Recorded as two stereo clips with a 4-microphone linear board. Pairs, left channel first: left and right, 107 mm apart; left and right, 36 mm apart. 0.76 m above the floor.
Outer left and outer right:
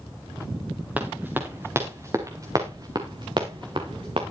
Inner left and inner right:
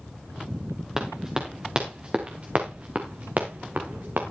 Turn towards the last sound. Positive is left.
turn(degrees=-60)  # may be behind; listen again after turning